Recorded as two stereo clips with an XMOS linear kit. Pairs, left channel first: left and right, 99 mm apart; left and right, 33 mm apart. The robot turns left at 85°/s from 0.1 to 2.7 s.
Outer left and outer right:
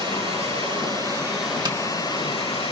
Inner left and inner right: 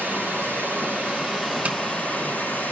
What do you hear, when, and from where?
0.0 s running water: 65° right, 9.5 m; by 2.7 s 75° left, 9.5 m
1.6 s tapping: 50° right (ahead or behind), 1.1 m; by 1.8 s 45° right (ahead or behind), 1.1 m